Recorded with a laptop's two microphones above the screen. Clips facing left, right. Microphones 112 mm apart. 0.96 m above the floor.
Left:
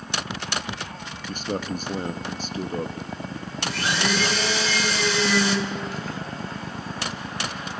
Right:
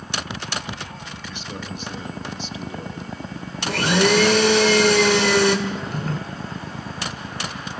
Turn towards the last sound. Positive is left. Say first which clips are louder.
# right 3 dB
turn(degrees=-50)  # may be behind; listen again after turning